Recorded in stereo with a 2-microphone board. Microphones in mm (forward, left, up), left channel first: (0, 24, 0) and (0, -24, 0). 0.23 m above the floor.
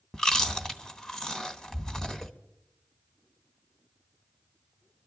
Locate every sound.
0.1 s chewing: 10° left (ahead or behind), 1.0 m